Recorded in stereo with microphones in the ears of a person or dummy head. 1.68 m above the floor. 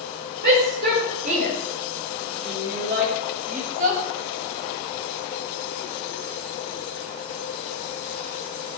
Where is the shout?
50° right (ahead or behind), 5 m; by 4.0 s 45° right (ahead or behind), 7 m.